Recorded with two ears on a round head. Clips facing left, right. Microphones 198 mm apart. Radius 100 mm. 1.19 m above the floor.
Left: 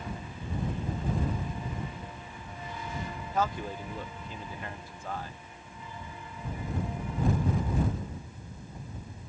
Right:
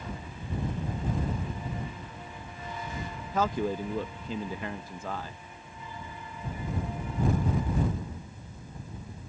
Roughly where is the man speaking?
Right.